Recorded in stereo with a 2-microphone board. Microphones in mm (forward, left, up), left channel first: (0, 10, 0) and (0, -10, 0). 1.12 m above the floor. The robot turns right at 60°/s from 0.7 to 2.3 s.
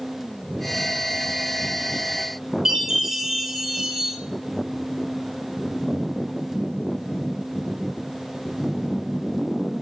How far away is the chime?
About 5.5 m.